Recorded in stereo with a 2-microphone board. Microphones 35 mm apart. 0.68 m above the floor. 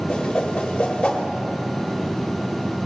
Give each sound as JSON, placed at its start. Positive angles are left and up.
{"t": 0.1, "sound": "a whoosh", "side_deg": 25, "distance_m": 1.1}